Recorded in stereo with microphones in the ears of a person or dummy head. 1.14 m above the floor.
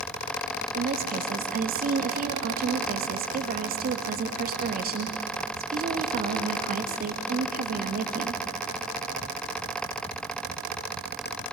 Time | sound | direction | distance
0.8 | a woman speaking | 45° right (ahead or behind) | 1.6 m